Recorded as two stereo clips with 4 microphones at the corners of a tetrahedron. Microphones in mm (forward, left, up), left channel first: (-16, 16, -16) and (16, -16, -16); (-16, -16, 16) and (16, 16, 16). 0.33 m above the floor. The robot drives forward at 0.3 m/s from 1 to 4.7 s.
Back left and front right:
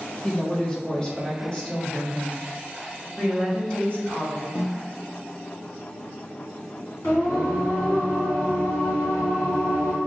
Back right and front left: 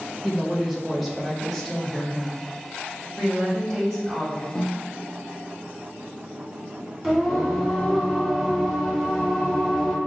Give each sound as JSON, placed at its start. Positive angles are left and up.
{"t": 0.2, "sound": "a woman speaking", "azimuth_deg": 135, "distance_m": 0.9}
{"t": 3.2, "sound": "a woman speaking", "azimuth_deg": 150, "distance_m": 1.6}
{"t": 4.5, "sound": "a snare drum", "azimuth_deg": 160, "distance_m": 1.0}
{"t": 7.0, "sound": "singing", "azimuth_deg": 150, "distance_m": 1.8}